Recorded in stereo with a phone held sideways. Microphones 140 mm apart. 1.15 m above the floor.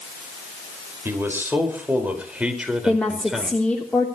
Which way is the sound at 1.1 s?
15° right (ahead or behind).